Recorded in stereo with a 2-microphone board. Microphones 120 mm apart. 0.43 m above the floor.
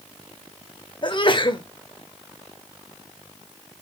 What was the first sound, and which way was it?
A sneeze, 40° left (ahead or behind).